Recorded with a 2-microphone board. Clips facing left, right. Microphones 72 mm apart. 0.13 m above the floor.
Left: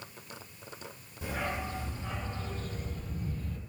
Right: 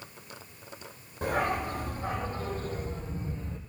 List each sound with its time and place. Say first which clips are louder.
1.2 s a dog barking: right 7 dB; 55° right (ahead or behind), 2.5 m; by 3.6 s 25° right (ahead or behind), 1.9 m